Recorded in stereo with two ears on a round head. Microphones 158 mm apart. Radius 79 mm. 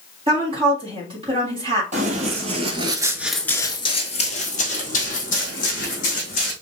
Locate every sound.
0.3 s a woman speaking: 30° right (ahead or behind), 1.7 m
1.9 s running footsteps: 45° right (ahead or behind), 1.8 m; by 6.5 s 50° left (ahead or behind), 3.5 m